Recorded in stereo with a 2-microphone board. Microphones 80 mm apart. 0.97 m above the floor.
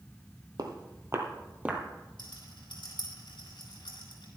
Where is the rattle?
75° left (ahead or behind), 5 m.